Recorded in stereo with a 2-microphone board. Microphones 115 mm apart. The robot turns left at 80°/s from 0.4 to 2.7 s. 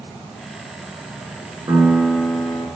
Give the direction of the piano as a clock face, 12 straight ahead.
5 o'clock.